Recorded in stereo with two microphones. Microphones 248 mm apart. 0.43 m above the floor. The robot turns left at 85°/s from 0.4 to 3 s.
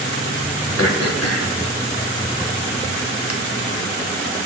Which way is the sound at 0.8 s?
55° left (ahead or behind).